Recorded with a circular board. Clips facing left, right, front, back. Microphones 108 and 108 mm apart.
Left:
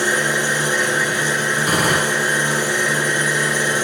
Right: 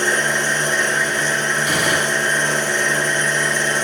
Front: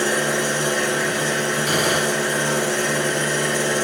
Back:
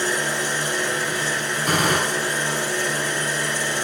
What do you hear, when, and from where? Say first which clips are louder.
0.0 s an engine running: even, front 4 dB; 10° left, 3.5 m
1.6 s a gunshot: left 3 dB, back 2 dB; 130° left, 6 m